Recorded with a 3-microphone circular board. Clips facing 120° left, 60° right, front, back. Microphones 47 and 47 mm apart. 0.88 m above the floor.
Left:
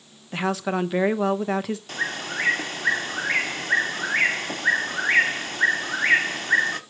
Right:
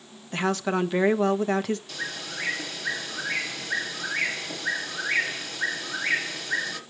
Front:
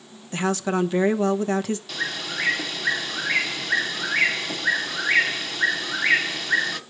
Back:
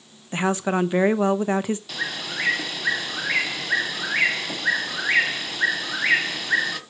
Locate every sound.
0.3 s a woman speaking: 160° right, 0.8 m
1.9 s a bird: 95° left, 1.1 m